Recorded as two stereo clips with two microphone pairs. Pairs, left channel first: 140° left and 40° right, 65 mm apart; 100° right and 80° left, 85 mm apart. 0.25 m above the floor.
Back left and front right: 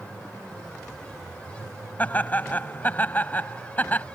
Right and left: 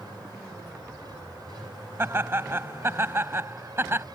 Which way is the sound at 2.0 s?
105° left.